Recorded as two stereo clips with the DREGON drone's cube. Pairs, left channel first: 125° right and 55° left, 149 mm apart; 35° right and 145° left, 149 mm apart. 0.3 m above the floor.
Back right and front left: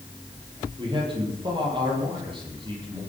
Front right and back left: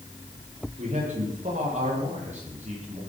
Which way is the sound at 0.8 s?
110° left.